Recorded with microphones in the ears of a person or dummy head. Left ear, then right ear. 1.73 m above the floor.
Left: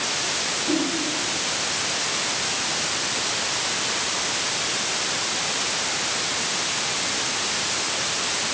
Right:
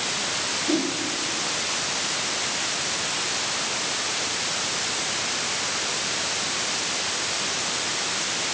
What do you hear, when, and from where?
0.7 s a whoosh: 40° right (ahead or behind), 8.5 m